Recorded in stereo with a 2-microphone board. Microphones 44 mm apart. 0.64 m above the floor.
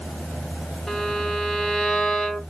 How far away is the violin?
About 1.0 m.